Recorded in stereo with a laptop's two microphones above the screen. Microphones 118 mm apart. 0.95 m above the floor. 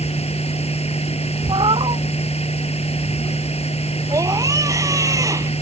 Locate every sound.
0.0 s a machine running: 60° left (ahead or behind)
1.5 s a cat meowing: 45° right (ahead or behind)
4.1 s a scream: 30° right (ahead or behind)